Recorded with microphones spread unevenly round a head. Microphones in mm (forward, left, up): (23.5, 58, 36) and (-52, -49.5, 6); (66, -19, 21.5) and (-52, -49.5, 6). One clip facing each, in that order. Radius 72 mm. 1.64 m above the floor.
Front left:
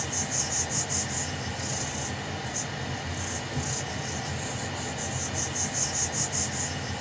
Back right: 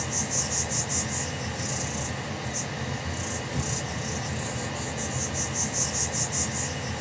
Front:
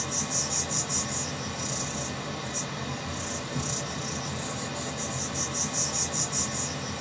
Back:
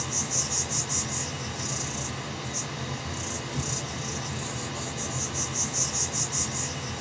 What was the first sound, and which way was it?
An insect, 70° right.